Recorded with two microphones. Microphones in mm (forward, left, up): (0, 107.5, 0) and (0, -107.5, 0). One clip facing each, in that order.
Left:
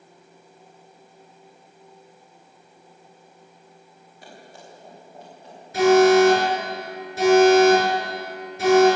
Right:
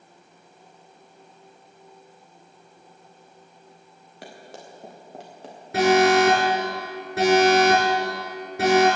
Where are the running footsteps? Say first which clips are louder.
Right 3 dB; 75° right (ahead or behind), 4.5 m; by 5.5 s 85° right, 5 m.